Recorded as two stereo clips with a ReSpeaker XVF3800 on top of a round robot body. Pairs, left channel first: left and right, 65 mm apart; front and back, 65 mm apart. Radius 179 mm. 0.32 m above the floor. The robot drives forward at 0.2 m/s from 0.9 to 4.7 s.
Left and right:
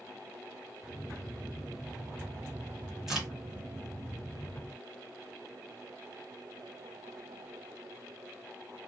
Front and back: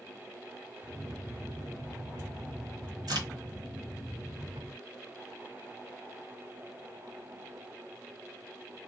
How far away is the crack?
About 1.3 m.